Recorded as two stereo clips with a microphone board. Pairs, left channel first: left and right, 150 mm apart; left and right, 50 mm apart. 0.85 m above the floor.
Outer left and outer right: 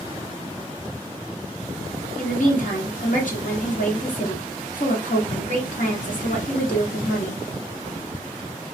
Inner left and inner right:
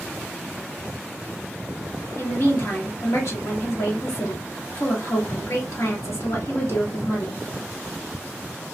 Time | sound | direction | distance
2.2 | a woman speaking | 60° left (ahead or behind) | 1.3 m